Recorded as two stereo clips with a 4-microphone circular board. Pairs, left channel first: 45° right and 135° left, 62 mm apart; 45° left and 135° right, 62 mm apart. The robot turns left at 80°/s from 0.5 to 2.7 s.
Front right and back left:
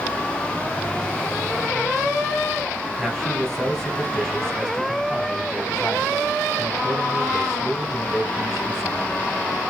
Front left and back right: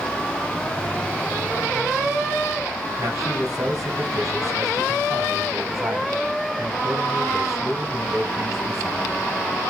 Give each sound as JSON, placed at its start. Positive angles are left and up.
{"t": 3.0, "sound": "a man speaking", "azimuth_deg": -125, "distance_m": 2.5}